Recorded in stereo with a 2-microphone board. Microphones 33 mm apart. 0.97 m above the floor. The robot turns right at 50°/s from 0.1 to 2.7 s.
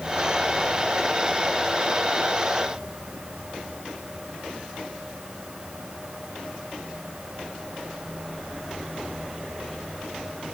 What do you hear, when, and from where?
Only background noise.